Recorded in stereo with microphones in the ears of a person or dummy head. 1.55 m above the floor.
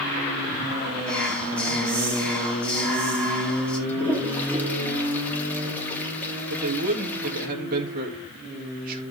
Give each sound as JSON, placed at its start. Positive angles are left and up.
{"t": 1.1, "sound": "whispering", "side_deg": 5, "distance_m": 4.5}
{"t": 3.9, "sound": "a toilet flushing", "side_deg": 10, "distance_m": 3.5}
{"t": 6.5, "sound": "a man speaking", "side_deg": -50, "distance_m": 3.0}